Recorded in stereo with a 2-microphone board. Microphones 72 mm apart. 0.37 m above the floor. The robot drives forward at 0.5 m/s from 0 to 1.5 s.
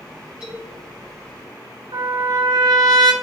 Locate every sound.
0.4 s a man speaking: 15° right (ahead or behind), 1.9 m
1.9 s a trumpet: 80° right, 1.3 m